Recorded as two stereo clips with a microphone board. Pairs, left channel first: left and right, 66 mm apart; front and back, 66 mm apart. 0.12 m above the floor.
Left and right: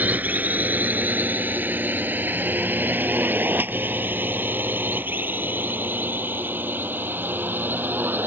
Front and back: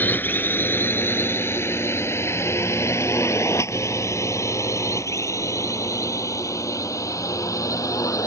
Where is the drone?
40° right; by 8.3 s 30° right.